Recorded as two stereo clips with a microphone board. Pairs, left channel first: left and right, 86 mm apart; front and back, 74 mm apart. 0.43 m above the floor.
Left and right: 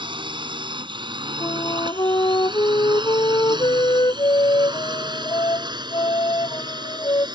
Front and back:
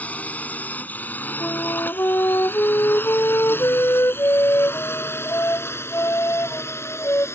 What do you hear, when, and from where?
0.0 s a drone: 70° right; by 7.4 s 55° right
1.4 s a flute: 55° left